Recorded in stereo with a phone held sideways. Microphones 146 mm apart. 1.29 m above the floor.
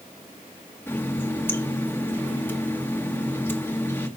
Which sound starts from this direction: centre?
A running tap, at 0.9 s.